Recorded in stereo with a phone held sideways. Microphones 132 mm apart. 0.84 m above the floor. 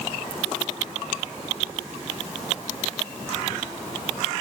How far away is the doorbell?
I don't hear a doorbell.